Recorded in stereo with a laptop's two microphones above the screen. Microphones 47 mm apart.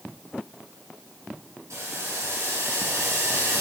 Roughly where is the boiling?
Right.